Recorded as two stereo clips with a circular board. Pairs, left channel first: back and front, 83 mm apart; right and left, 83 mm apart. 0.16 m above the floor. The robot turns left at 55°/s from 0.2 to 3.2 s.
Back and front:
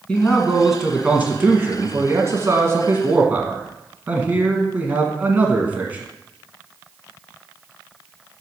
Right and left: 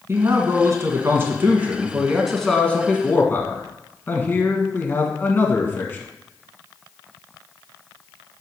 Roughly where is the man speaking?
Left.